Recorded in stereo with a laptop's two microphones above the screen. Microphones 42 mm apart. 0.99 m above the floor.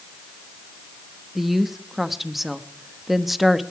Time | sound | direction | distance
1.4 | a woman speaking | 5° right (ahead or behind) | 1.0 m